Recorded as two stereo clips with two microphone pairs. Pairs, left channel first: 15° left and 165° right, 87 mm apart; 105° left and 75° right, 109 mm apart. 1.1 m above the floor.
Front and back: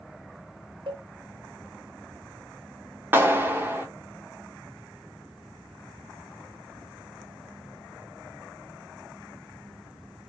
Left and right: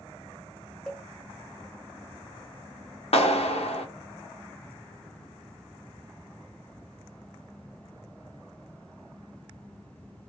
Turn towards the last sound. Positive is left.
turn(degrees=130)